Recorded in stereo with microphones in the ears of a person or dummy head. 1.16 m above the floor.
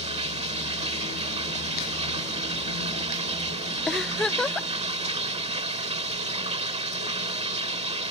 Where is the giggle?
5° left (ahead or behind).